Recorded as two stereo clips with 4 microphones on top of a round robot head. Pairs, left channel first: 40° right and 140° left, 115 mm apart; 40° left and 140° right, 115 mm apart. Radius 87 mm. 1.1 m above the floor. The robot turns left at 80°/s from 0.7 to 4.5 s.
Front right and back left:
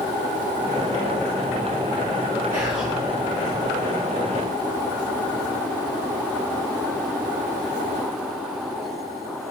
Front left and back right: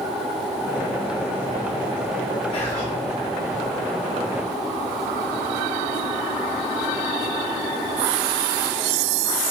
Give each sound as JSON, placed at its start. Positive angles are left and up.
{"t": 2.5, "sound": "whispering", "azimuth_deg": 90, "distance_m": 0.7}